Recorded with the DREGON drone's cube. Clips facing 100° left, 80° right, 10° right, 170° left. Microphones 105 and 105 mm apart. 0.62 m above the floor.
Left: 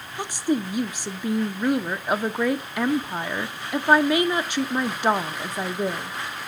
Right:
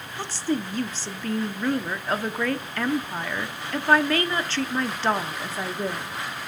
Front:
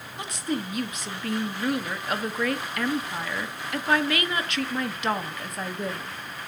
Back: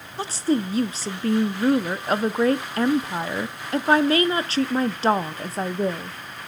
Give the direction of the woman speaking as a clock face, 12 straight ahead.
7 o'clock.